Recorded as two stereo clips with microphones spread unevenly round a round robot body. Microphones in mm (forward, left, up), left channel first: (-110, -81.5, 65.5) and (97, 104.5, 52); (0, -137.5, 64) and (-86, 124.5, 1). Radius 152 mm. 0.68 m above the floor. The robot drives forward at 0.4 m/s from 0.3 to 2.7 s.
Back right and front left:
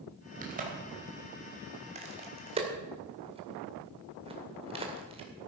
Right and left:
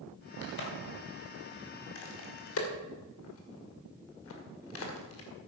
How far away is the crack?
About 3 m.